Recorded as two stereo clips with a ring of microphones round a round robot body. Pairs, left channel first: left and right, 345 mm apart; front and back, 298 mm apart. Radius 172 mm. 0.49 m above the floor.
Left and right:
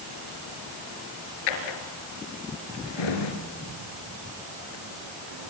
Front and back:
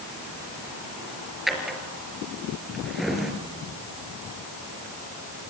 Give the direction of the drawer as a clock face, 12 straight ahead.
9 o'clock.